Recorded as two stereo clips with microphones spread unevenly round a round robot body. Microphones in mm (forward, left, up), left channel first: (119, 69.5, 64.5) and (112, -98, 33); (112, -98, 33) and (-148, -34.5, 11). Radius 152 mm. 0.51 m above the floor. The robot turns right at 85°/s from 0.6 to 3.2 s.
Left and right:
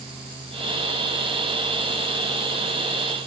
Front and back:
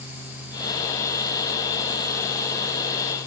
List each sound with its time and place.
Only background noise.